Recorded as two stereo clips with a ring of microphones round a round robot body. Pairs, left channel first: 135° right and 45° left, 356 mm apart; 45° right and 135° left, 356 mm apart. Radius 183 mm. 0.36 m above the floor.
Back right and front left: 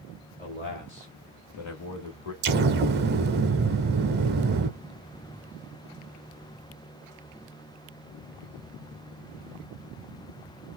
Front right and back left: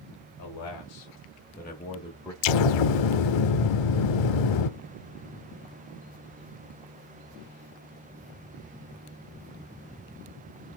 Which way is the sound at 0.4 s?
70° right.